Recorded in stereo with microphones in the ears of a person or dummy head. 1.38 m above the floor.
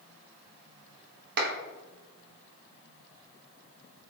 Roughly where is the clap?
Right.